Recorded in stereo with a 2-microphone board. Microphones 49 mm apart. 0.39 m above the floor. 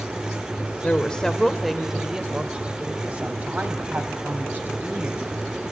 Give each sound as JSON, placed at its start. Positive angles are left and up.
{"t": 0.8, "sound": "a woman speaking", "side_deg": 25, "distance_m": 1.0}